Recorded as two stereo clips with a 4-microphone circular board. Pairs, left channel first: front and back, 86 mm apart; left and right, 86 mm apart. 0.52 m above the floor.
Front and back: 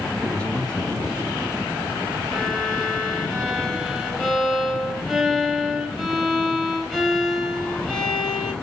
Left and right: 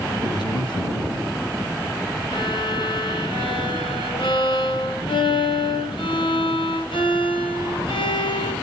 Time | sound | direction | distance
0.2 | a man speaking | 80° left | 3.5 m
2.3 | a violin | 85° left | 6.5 m